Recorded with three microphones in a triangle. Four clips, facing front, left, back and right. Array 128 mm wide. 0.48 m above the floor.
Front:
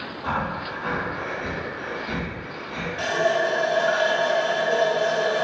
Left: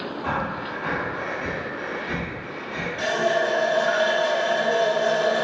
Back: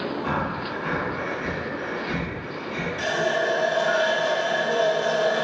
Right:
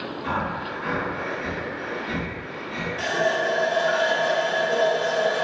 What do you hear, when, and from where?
0.2 s breathing: 40° left, 1.2 m
3.0 s a running tap: 5° left, 1.2 m